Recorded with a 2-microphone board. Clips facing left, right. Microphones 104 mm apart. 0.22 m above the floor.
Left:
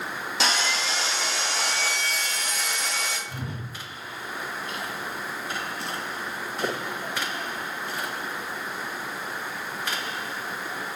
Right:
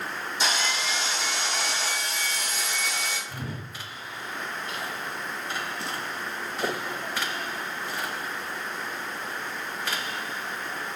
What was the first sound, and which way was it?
Sawing, 75° left (ahead or behind).